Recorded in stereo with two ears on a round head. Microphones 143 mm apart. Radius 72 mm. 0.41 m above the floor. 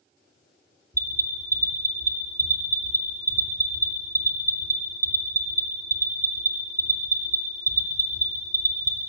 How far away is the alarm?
About 1.0 m.